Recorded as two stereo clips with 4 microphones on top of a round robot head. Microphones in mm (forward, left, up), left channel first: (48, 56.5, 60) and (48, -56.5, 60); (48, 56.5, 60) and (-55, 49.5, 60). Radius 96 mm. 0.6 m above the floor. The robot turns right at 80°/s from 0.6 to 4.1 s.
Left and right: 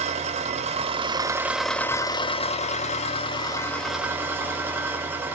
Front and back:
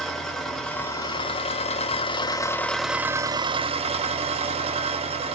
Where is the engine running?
85° right, 0.9 m; by 5.4 s 165° right, 0.9 m.